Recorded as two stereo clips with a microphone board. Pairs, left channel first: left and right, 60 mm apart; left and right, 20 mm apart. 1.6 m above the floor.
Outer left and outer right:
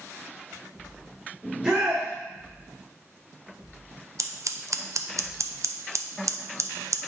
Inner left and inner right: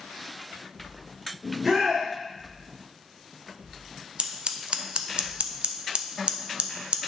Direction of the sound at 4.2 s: 55° right (ahead or behind).